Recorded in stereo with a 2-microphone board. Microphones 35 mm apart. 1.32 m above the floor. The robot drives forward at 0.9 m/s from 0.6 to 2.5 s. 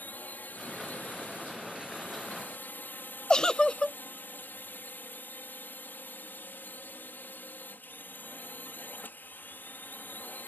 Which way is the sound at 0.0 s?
60° left (ahead or behind).